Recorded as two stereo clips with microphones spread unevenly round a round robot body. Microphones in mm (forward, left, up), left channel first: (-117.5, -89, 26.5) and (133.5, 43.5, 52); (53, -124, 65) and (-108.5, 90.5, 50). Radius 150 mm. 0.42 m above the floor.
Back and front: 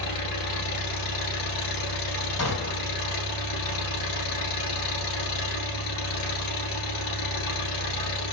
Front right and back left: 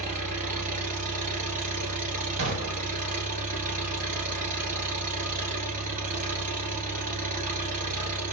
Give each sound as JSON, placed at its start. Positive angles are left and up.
{"t": 0.0, "sound": "an engine running", "azimuth_deg": -170, "distance_m": 1.8}
{"t": 2.4, "sound": "a gunshot", "azimuth_deg": 165, "distance_m": 2.5}